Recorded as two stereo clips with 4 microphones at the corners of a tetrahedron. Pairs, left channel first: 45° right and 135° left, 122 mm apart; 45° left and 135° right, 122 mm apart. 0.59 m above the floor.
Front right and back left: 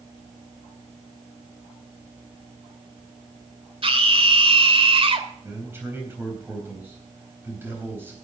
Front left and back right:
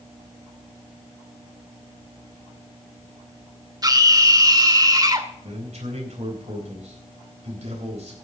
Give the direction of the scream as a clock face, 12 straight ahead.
6 o'clock.